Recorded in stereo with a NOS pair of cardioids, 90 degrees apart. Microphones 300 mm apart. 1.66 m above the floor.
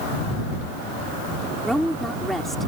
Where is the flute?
I don't hear a flute.